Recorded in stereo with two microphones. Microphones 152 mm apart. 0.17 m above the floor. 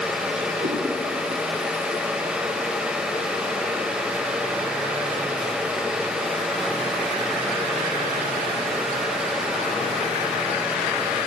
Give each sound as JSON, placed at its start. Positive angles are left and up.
{"t": 0.6, "sound": "a cat meowing", "side_deg": -60, "distance_m": 3.0}